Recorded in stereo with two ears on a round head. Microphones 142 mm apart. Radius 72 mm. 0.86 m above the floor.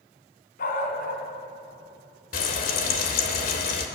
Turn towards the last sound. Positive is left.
turn(degrees=65)  # may be behind; listen again after turning